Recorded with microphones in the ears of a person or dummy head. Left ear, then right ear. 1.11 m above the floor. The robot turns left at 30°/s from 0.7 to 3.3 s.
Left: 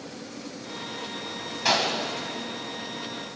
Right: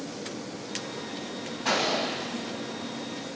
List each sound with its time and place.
1.6 s a gunshot: 65° left (ahead or behind), 2 m; by 2.1 s 55° left (ahead or behind), 2 m